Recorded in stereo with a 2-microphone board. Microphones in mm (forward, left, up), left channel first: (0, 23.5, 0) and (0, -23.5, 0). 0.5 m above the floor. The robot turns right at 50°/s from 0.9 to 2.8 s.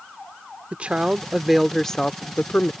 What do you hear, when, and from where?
0.7 s a woman speaking: 35° right; by 2.7 s 55° left